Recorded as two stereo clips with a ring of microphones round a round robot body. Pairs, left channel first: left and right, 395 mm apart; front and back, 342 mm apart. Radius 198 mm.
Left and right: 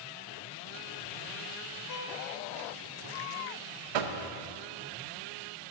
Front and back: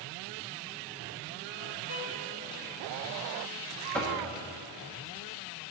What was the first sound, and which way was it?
A violin, 50° left.